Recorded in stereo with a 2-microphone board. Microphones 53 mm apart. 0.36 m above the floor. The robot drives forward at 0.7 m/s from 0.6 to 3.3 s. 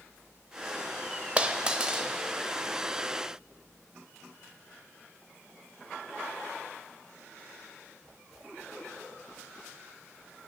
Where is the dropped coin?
25° right (ahead or behind), 0.6 m; by 2.1 s 15° right (ahead or behind), 1.0 m.